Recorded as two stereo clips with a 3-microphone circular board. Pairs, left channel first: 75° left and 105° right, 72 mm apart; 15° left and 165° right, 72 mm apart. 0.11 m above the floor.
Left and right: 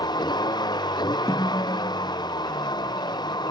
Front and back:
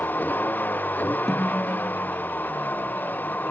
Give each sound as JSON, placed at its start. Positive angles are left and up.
{"t": 0.0, "sound": "a vehicle", "azimuth_deg": 80}
{"t": 1.3, "sound": "a snare drum", "azimuth_deg": 100}